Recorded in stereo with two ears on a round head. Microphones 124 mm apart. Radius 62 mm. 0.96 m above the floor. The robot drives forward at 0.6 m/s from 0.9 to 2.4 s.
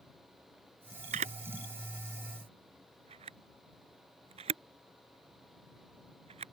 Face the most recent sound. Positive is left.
turn(degrees=-50)  # may be behind; listen again after turning